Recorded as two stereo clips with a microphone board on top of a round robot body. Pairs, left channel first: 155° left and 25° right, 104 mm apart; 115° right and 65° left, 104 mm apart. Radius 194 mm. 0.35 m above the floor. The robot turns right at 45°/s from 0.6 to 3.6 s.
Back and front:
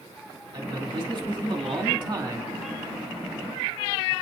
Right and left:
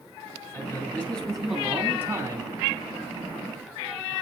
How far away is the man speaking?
About 2 m.